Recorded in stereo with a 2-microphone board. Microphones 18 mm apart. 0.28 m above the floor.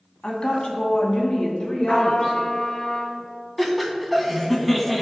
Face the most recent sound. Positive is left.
turn(degrees=5)  # may be behind; listen again after turning